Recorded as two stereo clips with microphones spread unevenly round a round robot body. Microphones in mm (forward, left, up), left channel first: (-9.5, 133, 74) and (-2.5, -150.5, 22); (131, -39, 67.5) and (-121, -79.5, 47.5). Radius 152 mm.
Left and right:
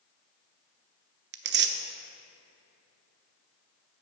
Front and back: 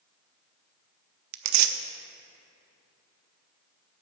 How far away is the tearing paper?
About 0.7 m.